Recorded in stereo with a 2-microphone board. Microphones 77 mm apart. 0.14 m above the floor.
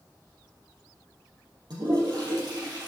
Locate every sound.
1.7 s a toilet flushing: 60° right (ahead or behind), 3.5 m